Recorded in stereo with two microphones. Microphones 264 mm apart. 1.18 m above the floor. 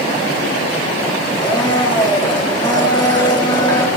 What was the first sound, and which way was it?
A blender, 15° left (ahead or behind).